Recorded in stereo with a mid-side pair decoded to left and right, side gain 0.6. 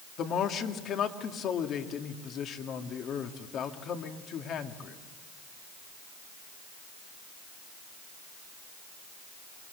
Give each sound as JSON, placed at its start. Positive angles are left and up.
{"t": 0.2, "sound": "a man speaking", "azimuth_deg": 50, "distance_m": 2.0}